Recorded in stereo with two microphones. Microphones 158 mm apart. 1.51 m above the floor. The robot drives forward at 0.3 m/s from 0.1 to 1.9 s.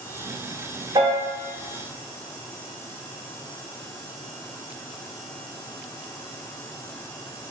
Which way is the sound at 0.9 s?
30° right (ahead or behind).